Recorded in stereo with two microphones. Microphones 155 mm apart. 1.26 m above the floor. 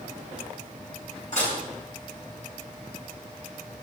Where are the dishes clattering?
55° left (ahead or behind), 9.5 m.